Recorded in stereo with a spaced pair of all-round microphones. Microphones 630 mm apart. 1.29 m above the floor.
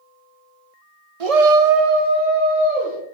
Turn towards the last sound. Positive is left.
turn(degrees=-10)  # may be behind; listen again after turning